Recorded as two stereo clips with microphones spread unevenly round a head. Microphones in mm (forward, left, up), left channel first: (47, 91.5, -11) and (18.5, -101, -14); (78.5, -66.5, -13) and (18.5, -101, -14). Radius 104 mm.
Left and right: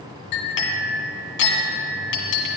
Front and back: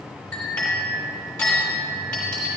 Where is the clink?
105° left, 1.9 m.